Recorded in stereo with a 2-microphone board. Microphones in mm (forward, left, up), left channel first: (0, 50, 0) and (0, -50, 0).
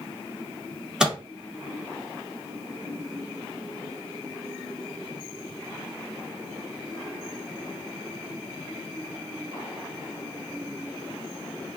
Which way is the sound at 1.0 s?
5° right (ahead or behind).